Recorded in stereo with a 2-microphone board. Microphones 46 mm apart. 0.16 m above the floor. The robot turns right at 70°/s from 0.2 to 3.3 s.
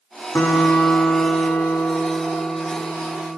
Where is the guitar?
45° left, 6 m; by 3.4 s 110° right, 6 m.